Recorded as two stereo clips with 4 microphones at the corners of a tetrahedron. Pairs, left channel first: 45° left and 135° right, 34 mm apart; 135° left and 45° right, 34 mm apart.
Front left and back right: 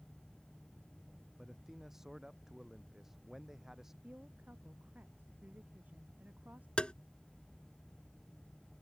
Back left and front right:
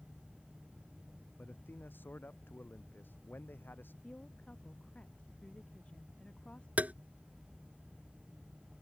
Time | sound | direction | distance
1.4 | a man speaking | 145° left | ?
4.0 | a woman speaking | 170° right | ?
6.8 | tapping | 10° right | ?